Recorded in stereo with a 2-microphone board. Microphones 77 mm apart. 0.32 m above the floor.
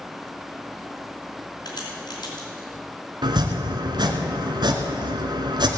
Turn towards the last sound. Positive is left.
turn(degrees=-75)  # may be behind; listen again after turning